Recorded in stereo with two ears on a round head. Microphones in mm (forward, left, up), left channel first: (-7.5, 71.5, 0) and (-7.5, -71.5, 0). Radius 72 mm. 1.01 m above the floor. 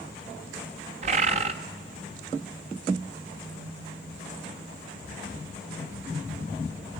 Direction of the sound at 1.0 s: 40° right (ahead or behind).